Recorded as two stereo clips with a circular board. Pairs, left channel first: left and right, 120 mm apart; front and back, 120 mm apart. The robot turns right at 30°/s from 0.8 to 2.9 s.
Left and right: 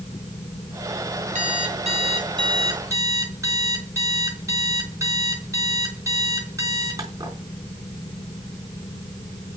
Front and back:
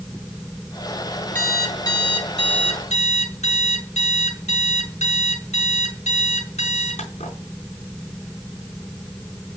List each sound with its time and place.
1.4 s an alarm clock: 70° right, 4 m; by 7.4 s 25° right, 4 m